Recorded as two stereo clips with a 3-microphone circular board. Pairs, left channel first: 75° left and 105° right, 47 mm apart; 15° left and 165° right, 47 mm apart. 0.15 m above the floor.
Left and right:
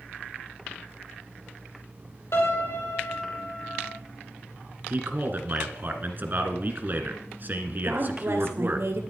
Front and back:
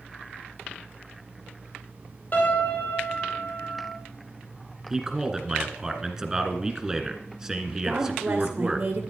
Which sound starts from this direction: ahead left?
A piano, at 2.3 s.